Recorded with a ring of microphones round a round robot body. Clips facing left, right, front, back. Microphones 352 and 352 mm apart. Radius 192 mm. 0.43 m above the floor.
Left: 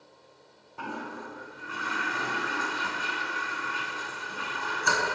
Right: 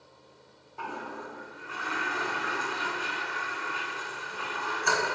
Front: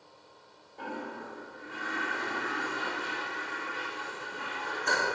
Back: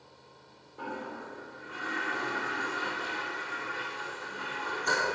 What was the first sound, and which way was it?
A toilet flushing, 105° left.